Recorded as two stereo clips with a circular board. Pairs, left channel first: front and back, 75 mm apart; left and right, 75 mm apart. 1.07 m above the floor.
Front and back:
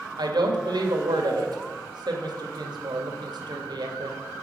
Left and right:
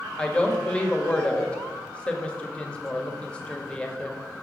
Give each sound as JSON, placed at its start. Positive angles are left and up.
{"t": 0.2, "sound": "a woman speaking", "azimuth_deg": 165, "distance_m": 1.8}